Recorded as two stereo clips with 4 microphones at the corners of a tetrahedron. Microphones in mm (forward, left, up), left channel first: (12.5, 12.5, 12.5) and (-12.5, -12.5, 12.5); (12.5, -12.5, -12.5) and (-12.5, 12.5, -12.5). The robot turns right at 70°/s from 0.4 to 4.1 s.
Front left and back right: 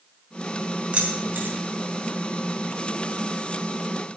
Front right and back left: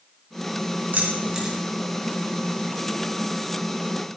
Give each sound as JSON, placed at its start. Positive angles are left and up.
{"t": 0.9, "sound": "keys jangling", "azimuth_deg": 170, "distance_m": 4.0}